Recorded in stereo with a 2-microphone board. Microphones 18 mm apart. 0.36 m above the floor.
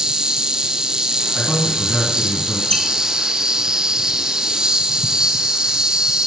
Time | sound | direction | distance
0.0 | an insect | 55° right (ahead or behind) | 1.1 m
1.4 | a man speaking | 30° left (ahead or behind) | 3.5 m
2.7 | a squeak | 60° left (ahead or behind) | 2.5 m